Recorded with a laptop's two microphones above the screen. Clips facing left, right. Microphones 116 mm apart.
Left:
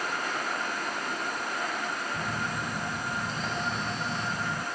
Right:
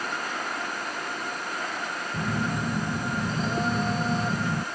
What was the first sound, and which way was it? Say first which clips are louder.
A phone buzzing: right 4 dB; 45° right (ahead or behind).